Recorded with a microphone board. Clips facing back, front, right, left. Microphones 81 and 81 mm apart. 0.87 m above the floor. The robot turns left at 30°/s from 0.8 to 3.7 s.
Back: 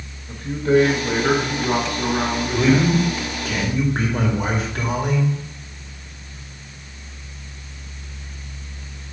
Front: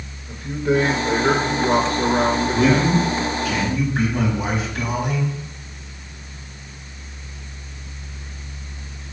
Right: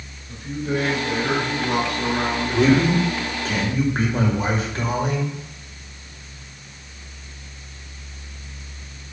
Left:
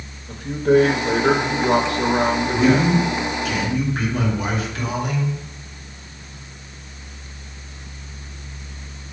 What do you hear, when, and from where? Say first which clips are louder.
0.3 s a man speaking: back 2 dB, left 9 dB; 80° left, 1.1 m; by 2.9 s 15° left, 1.1 m
2.5 s a man speaking: back 2 dB, right 1 dB; 105° right, 2.5 m; by 5.3 s 140° right, 2.5 m